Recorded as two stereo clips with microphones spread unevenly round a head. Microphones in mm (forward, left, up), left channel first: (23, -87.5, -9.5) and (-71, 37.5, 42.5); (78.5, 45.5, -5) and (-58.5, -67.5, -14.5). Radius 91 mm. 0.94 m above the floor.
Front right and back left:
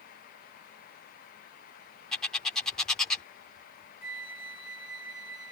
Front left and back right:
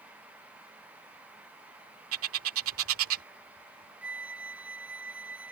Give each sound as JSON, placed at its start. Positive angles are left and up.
{"t": 2.1, "sound": "a bird", "azimuth_deg": -140}
{"t": 4.0, "sound": "a flute", "azimuth_deg": -60}